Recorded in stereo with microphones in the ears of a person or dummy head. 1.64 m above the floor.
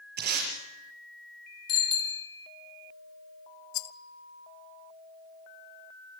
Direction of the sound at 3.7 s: 70° left (ahead or behind).